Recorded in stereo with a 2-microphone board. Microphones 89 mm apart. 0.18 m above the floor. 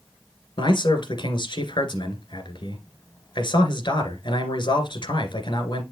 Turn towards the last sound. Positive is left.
turn(degrees=65)  # may be behind; listen again after turning